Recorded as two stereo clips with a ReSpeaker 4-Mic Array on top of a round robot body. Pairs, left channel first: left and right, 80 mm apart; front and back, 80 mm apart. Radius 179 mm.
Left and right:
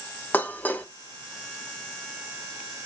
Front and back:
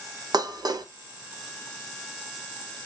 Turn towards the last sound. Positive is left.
turn(degrees=155)